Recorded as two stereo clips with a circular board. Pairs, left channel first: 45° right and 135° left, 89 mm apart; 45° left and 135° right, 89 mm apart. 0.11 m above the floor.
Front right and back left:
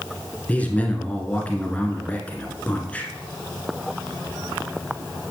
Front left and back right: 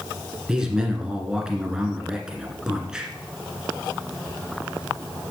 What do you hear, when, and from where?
0.5 s a man speaking: 70° right, 1.5 m